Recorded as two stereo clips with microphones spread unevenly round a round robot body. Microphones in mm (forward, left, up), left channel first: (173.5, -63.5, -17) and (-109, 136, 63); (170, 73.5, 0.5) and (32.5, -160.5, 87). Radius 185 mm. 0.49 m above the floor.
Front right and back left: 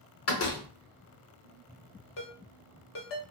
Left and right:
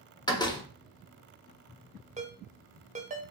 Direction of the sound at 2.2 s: 45° right.